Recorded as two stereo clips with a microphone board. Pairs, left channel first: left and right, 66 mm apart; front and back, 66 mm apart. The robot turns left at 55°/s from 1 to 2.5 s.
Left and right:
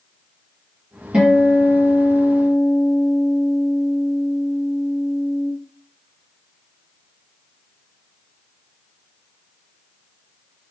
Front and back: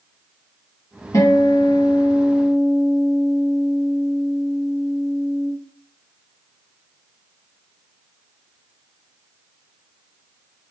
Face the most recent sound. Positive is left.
turn(degrees=-90)